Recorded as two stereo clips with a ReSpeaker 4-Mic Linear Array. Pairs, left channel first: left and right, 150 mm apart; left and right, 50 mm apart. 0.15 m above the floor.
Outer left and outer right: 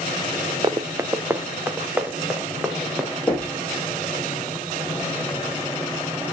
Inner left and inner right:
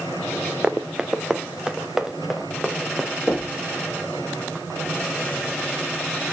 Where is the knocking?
10° left (ahead or behind), 8.5 m.